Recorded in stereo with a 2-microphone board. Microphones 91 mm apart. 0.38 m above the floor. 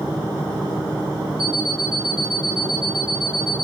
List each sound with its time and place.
1.4 s an alarm clock: 70° right (ahead or behind), 4 m